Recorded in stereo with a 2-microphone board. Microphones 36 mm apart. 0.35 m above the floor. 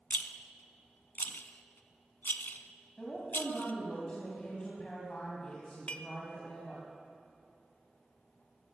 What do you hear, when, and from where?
0.1 s a rattle: 75° left (ahead or behind), 0.5 m
3.0 s a woman speaking: 25° left (ahead or behind), 2.5 m
5.9 s dishes clattering: 35° left (ahead or behind), 0.6 m